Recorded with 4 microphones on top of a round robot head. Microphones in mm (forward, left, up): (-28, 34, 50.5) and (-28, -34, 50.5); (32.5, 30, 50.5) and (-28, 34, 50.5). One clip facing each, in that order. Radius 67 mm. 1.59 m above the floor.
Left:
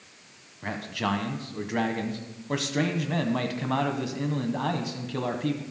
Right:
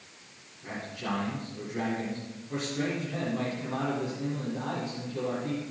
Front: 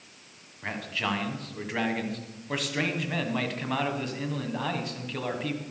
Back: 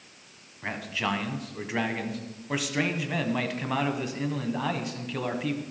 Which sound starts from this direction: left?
A man speaking, at 0.6 s.